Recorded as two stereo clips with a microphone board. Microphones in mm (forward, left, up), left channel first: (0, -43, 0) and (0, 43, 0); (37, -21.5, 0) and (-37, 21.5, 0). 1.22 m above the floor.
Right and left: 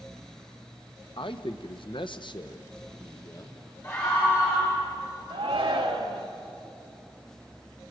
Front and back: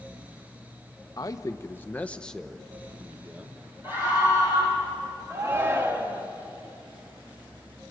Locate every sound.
1.2 s a man speaking: 75° right, 1.0 m; by 3.6 s 145° right, 1.3 m
3.8 s a scream: 145° right, 6 m
5.3 s a shout: 90° left, 1.7 m